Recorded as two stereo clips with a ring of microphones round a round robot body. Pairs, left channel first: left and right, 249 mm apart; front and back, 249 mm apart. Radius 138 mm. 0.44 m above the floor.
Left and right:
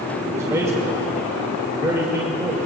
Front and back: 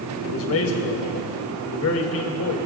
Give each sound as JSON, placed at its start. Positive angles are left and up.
{"t": 0.2, "sound": "a man speaking", "azimuth_deg": -10, "distance_m": 2.5}